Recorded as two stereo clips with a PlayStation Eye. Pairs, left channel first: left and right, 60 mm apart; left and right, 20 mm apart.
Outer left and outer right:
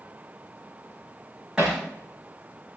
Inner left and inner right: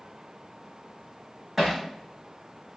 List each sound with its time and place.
1.6 s hammering: 15° right (ahead or behind), 7 m